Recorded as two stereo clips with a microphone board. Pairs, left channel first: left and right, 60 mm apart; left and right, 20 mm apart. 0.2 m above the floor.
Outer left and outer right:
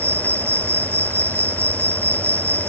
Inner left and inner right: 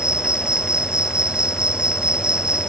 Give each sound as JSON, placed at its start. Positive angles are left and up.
{"t": 0.0, "sound": "an insect", "side_deg": -40}